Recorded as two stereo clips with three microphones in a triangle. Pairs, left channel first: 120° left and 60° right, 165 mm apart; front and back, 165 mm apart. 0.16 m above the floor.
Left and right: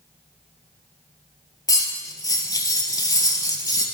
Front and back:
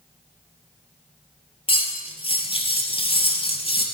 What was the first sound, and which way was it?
Cutlery clinking, 55° left.